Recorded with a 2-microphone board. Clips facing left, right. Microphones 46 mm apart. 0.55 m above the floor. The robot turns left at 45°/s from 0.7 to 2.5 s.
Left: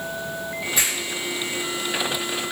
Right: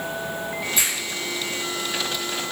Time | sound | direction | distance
0.8 | a finger snap | 50° left (ahead or behind) | 1.5 m